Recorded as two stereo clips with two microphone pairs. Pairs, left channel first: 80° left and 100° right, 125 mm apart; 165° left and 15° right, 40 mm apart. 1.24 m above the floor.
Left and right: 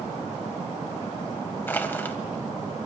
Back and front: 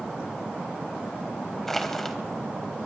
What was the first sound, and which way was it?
Crushing, 115° left.